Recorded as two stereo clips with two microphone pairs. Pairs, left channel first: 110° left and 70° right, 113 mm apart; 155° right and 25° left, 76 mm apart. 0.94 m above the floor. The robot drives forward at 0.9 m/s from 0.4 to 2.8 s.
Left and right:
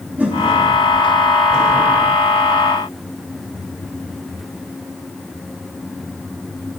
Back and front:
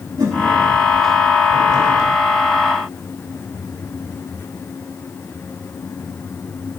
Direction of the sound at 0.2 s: 5° left.